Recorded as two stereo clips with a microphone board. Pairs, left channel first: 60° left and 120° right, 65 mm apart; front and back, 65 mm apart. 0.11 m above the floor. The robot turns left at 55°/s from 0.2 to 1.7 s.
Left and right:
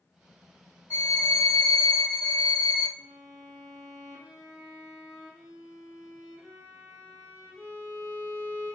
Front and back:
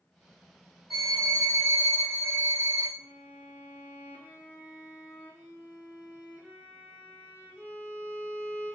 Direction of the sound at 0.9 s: 95° left.